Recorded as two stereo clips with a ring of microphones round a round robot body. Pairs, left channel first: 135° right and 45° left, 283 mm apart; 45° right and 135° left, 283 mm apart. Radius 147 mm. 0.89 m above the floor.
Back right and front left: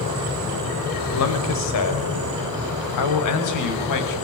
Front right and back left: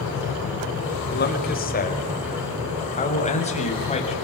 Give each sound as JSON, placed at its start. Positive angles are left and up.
{"t": 1.1, "sound": "a man speaking", "azimuth_deg": -100, "distance_m": 4.5}